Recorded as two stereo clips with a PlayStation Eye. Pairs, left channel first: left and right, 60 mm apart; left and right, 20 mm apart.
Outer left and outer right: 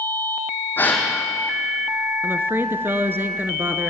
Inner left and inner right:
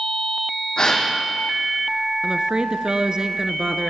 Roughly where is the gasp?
Left.